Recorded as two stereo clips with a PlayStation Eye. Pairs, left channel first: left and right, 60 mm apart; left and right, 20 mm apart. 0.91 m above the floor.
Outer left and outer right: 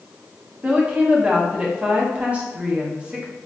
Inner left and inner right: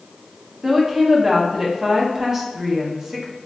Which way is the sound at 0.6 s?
20° right (ahead or behind).